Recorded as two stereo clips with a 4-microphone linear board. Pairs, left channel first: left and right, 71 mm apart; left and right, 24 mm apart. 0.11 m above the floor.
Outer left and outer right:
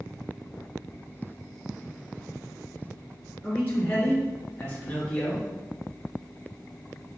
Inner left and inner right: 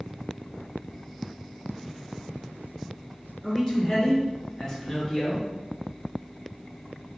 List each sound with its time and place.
3.4 s a man speaking: 30° left (ahead or behind), 1.4 m; by 5.5 s 25° left (ahead or behind), 1.3 m